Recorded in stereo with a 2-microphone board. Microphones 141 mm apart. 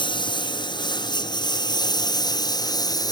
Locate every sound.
0.0 s a lawn mower: 30° left (ahead or behind); by 3.1 s 25° left (ahead or behind)